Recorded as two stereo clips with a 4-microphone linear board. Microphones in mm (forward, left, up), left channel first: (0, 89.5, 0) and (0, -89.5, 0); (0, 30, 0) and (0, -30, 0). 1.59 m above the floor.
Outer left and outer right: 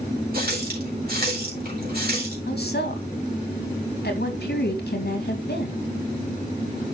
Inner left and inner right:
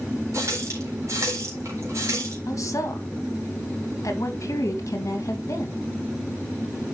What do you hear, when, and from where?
0.3 s a running tap: 60° right (ahead or behind), 4 m
2.5 s a woman speaking: 65° left (ahead or behind), 2 m